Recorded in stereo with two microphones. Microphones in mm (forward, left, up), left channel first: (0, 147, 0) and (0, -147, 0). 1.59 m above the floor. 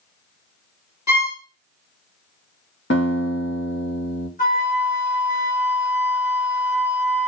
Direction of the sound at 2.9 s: 40° left (ahead or behind).